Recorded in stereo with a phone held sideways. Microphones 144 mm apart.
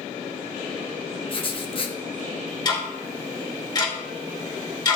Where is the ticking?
30° left (ahead or behind), 2.5 m.